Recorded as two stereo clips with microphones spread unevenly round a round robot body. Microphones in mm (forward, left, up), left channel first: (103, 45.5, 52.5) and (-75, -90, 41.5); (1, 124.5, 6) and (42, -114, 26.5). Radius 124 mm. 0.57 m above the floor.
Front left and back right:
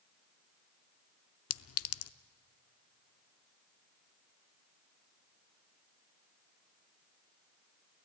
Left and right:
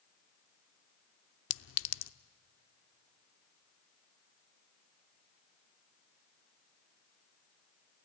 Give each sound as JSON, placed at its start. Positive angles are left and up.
{"t": 1.5, "sound": "a clink", "azimuth_deg": 65, "distance_m": 0.5}